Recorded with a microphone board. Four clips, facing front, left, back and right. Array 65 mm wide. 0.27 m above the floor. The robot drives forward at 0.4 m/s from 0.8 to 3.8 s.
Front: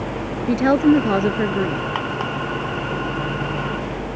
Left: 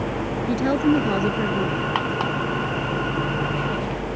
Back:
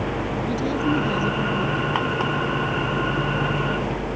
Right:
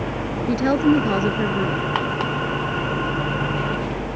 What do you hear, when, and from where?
0.5 s a woman speaking: 10° right